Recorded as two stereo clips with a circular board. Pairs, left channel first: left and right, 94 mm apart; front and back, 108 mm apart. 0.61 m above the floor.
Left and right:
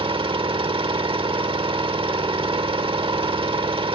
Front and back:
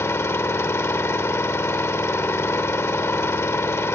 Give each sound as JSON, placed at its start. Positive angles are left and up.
{"t": 0.0, "sound": "an engine running", "azimuth_deg": -65, "distance_m": 0.9}